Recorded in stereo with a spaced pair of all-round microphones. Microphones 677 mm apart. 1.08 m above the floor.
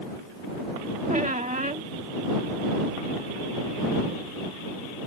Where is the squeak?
10° right (ahead or behind).